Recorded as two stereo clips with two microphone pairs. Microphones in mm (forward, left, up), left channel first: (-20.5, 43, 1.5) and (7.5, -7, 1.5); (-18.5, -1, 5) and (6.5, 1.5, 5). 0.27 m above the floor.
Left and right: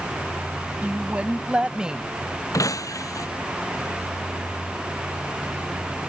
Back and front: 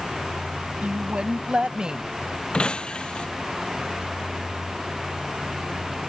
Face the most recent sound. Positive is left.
turn(degrees=135)